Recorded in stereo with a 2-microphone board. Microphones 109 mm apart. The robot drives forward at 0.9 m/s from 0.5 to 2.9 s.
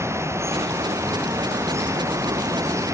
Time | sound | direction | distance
0.0 | running water | 25° right (ahead or behind) | ?